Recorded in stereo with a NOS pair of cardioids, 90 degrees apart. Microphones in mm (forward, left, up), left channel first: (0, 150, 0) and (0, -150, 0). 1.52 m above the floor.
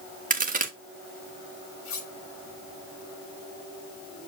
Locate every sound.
0.3 s a crack: 25° right, 1.8 m
1.9 s cutlery clinking: 70° left, 4 m